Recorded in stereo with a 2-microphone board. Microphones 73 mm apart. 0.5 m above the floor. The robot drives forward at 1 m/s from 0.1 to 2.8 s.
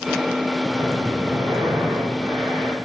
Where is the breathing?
50° right (ahead or behind), 4.5 m; by 2.8 s 75° right (ahead or behind), 4 m.